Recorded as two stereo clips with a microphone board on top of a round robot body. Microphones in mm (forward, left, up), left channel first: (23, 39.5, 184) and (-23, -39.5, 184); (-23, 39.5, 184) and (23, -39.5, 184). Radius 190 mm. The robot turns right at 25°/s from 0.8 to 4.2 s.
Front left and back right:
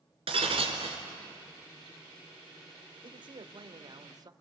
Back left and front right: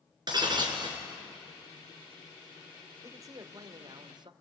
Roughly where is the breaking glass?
Right.